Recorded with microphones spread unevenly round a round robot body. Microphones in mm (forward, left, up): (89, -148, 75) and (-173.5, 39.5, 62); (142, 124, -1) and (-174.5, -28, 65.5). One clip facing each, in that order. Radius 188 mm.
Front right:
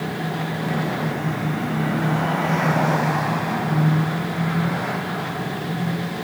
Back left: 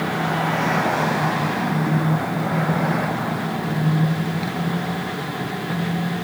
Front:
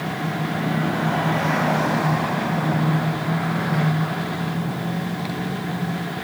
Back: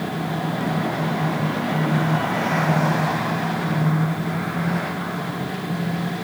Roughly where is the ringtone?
I don't hear a ringtone.